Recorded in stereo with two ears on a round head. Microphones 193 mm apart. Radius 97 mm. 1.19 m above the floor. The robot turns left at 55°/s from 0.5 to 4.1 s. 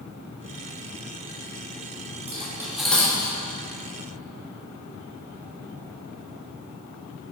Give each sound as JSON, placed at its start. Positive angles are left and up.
{"t": 2.3, "sound": "cutlery clinking", "side_deg": -30, "distance_m": 1.2}